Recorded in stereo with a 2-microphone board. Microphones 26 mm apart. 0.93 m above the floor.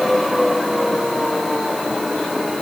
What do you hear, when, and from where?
Only background noise.